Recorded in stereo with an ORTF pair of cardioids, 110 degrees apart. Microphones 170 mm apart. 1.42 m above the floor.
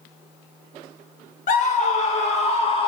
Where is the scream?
50° left, 2 m; by 2.9 s 30° left, 1.6 m.